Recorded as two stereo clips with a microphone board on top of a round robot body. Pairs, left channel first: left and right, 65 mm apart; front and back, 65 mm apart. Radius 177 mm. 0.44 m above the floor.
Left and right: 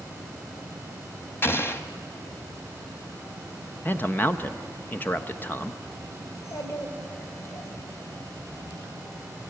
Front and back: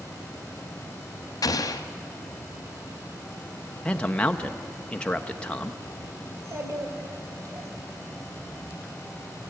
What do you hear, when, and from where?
1.4 s an explosion: 35° left, 0.8 m
3.9 s a man speaking: 60° left, 0.9 m
6.3 s a child speaking: 135° left, 3 m